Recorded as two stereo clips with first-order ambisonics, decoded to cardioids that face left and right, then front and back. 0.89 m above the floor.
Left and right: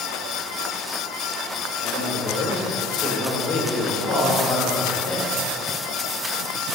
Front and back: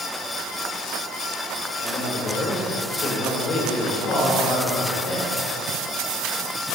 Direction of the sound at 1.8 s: 45° left.